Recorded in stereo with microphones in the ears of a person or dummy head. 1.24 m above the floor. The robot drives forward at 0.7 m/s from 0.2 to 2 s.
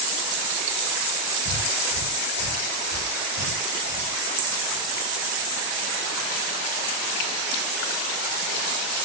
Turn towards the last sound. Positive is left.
turn(degrees=-70)  # may be behind; listen again after turning